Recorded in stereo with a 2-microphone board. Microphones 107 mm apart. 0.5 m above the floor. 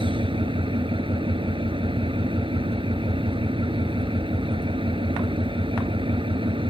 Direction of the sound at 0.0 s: 55° right (ahead or behind).